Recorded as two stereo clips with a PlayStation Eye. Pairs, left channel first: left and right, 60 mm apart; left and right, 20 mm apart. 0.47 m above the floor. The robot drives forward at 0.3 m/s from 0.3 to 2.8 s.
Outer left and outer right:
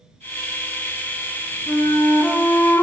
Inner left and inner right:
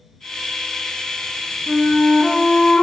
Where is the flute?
60° left (ahead or behind), 0.7 m; by 2.8 s 40° left (ahead or behind), 0.9 m.